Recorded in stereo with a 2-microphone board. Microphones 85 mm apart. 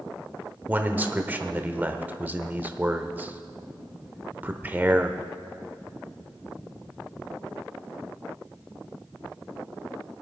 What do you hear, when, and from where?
0.7 s a man speaking: 20° right (ahead or behind), 0.8 m